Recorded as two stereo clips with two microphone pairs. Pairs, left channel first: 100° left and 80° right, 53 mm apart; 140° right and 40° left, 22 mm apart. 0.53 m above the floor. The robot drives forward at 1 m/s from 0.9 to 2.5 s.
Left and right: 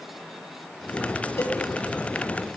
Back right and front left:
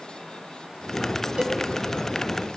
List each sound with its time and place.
1.4 s a cowbell: 75° left, 0.6 m; by 1.5 s 95° left, 0.5 m